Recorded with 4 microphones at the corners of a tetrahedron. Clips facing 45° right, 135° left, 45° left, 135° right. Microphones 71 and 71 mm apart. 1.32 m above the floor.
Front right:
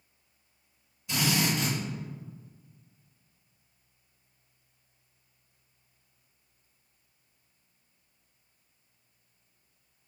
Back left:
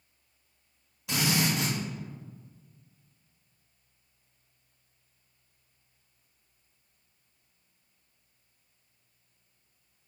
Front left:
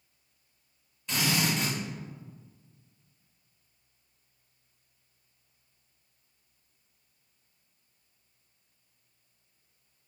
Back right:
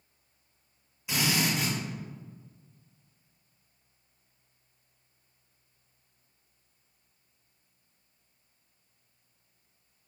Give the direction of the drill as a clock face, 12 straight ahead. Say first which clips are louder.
Even, even; 7 o'clock.